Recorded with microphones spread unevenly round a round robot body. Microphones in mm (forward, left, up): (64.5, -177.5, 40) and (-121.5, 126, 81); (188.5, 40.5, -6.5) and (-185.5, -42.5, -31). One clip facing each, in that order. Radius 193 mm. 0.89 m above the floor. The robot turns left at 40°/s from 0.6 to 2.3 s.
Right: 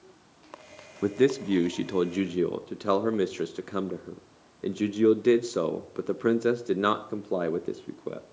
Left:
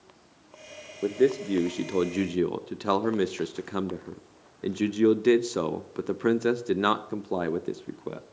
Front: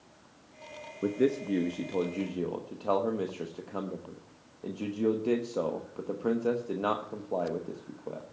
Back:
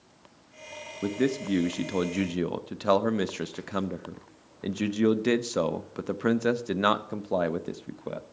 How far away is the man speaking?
About 0.8 m.